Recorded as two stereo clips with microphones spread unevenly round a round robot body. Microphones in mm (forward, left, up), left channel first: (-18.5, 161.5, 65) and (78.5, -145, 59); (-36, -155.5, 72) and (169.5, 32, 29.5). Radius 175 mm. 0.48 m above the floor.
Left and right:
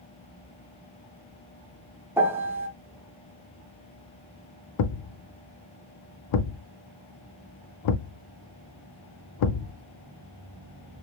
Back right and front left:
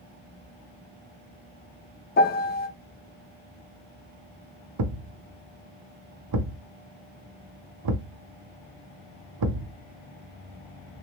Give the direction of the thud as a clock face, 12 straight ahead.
10 o'clock.